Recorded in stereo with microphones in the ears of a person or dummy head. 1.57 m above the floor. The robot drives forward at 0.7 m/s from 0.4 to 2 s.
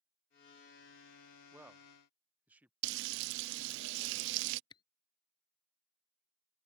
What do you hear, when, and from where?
1.5 s a man speaking: 10° right (ahead or behind); by 2.7 s 5° right (ahead or behind)
2.8 s frying: 70° right (ahead or behind)
4.7 s a camera shutter: 25° left (ahead or behind)